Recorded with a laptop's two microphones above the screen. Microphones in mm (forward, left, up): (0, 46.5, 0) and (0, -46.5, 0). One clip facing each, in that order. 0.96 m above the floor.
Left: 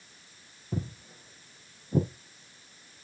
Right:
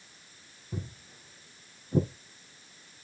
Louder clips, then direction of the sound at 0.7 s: Left 5 dB; 35° left (ahead or behind).